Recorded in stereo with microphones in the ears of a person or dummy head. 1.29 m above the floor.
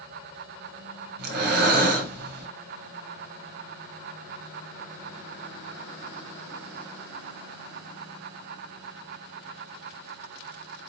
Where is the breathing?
55° right (ahead or behind), 0.8 m.